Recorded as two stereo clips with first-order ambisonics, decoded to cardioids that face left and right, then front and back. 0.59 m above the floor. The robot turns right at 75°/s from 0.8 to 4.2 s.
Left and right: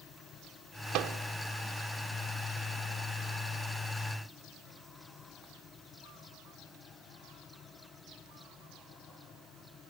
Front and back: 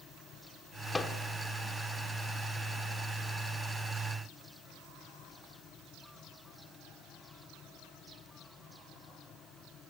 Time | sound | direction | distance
0.9 | a microwave | 75° right | 1.1 m